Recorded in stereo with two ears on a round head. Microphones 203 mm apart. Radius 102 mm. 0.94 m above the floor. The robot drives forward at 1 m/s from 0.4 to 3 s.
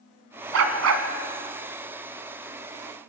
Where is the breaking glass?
I don't hear breaking glass.